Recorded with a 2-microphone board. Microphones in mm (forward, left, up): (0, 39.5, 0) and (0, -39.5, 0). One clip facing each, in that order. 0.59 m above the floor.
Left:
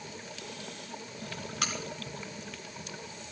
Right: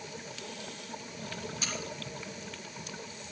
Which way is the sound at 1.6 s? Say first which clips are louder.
Left 9 dB; 65° left (ahead or behind).